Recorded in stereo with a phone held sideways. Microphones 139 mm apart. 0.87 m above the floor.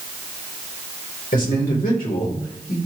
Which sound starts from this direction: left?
A man speaking, at 1.3 s.